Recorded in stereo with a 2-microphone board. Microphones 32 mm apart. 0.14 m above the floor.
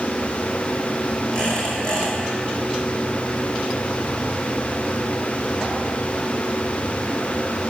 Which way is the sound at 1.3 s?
30° left (ahead or behind).